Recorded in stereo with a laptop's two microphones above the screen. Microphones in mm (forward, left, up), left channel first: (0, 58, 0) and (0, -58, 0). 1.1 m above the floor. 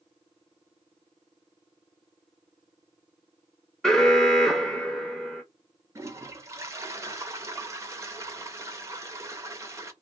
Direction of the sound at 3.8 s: 5° left (ahead or behind).